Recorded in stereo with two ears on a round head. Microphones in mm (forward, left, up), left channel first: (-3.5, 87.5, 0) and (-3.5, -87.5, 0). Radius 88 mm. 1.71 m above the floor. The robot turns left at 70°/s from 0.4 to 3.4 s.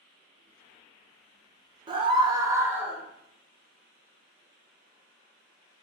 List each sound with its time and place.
1.9 s a scream: 25° right (ahead or behind), 0.6 m; by 3.0 s centre (ahead or behind), 0.6 m